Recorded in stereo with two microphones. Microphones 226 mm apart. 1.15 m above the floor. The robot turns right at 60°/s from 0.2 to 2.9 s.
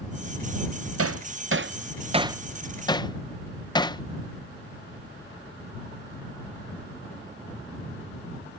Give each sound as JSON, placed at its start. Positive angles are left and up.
{"t": 1.0, "sound": "hammering", "side_deg": -80}